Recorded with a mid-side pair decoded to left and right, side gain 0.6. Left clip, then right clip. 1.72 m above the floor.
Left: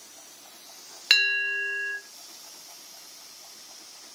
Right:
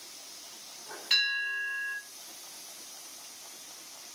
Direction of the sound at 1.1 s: 70° left.